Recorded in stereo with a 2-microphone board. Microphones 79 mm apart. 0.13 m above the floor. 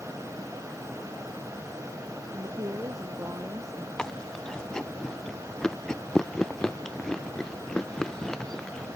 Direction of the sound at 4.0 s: 10° left (ahead or behind).